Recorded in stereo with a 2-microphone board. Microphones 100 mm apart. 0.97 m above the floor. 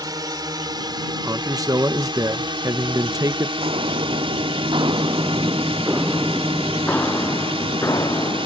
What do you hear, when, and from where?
0.0 s a drone: 40° right (ahead or behind); by 8.5 s 65° right (ahead or behind)
1.2 s a man speaking: 35° right (ahead or behind)
3.6 s footsteps: 75° right (ahead or behind); by 8.5 s 40° left (ahead or behind)